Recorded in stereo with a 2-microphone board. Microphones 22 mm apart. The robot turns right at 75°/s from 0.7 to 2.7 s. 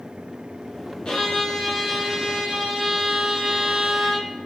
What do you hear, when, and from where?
1.1 s a violin: 125° left, 0.9 m; by 4.3 s 115° right, 0.9 m